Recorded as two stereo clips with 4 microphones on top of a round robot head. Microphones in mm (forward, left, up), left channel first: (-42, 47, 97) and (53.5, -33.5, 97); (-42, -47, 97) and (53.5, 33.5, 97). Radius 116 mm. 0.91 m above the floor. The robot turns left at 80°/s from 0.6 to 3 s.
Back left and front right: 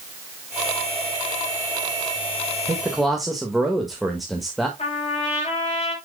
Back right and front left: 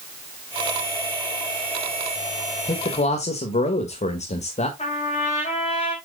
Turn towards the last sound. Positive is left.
turn(degrees=180)